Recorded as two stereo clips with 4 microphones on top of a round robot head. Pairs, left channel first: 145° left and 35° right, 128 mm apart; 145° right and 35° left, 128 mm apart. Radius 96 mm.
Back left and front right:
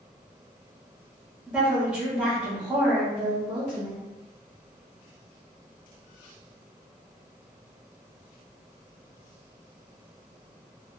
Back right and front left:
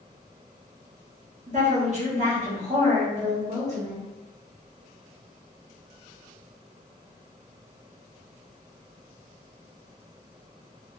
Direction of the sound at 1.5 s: 45° left.